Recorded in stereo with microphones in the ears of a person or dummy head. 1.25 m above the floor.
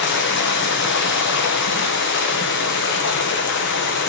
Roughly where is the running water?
Left.